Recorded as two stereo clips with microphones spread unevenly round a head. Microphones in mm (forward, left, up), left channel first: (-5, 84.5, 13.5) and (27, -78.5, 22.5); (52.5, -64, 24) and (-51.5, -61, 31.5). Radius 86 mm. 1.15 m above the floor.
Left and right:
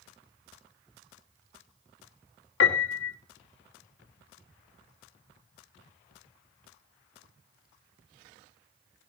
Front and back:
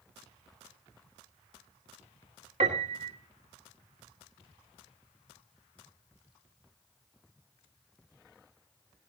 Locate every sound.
2.6 s a piano: 125° left, 1.7 m